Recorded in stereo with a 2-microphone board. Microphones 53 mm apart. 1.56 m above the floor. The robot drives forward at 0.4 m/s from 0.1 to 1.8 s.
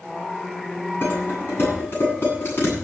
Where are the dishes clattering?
40° left (ahead or behind), 9 m.